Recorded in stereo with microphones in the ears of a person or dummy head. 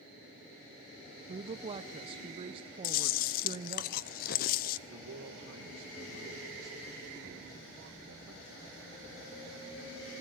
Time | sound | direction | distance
1.3 | a woman speaking | 30° right (ahead or behind) | 0.6 m
2.8 | chewing | 50° left (ahead or behind) | 0.6 m
4.9 | a man speaking | 75° right (ahead or behind) | 2 m